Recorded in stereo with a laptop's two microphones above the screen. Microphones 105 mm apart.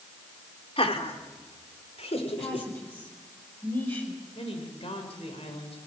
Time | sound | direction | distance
0.8 | laughter | 65° left (ahead or behind) | 3 m
2.4 | a woman speaking | 20° left (ahead or behind) | 4.5 m
4.3 | a woman speaking | 70° left (ahead or behind) | 4.5 m